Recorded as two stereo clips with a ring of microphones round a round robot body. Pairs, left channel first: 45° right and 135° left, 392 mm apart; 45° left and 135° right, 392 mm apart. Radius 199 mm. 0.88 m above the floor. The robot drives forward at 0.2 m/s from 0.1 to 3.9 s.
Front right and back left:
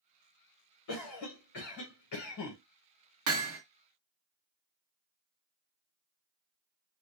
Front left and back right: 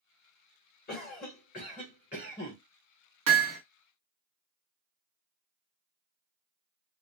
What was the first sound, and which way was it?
A cough, 20° right.